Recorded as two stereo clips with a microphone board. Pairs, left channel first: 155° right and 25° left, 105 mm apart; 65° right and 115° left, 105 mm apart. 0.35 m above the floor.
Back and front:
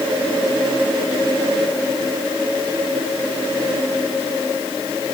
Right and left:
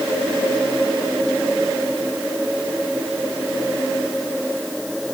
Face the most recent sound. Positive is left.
No sound to turn to.